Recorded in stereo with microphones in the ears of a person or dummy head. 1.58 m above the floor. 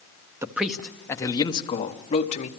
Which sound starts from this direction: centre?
A man speaking, at 0.4 s.